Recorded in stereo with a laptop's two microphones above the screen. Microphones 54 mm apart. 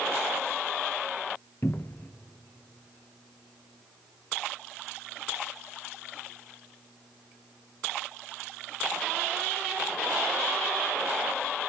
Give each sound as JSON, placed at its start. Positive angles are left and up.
{"t": 1.6, "sound": "a cupboard door", "side_deg": 40, "distance_m": 0.7}